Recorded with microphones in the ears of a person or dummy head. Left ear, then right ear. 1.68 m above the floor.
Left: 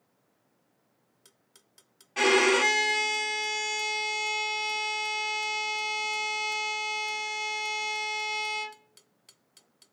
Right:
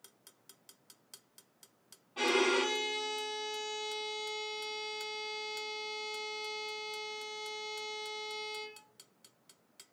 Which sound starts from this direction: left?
A violin, at 2.2 s.